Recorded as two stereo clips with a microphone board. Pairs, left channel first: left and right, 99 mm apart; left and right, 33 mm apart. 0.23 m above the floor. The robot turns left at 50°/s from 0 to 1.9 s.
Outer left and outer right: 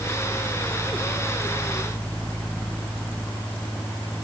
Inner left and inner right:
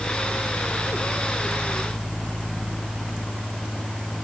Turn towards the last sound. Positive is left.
No sound to turn to.